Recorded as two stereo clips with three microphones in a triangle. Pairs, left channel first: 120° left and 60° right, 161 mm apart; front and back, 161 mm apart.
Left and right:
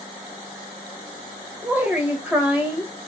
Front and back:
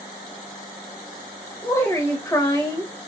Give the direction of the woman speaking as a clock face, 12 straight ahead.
12 o'clock.